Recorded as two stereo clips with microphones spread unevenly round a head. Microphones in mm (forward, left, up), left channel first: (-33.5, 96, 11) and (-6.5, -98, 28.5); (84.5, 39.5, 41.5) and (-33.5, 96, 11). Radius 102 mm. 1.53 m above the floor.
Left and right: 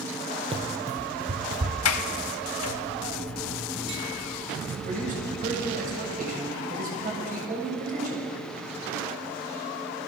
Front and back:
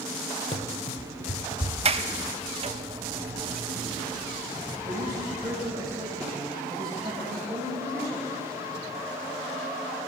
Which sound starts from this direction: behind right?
A man speaking, at 4.8 s.